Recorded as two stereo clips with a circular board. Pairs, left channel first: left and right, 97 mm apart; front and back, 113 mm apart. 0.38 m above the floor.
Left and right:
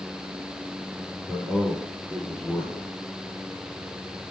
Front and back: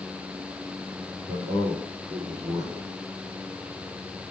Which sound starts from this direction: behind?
A man speaking, at 1.3 s.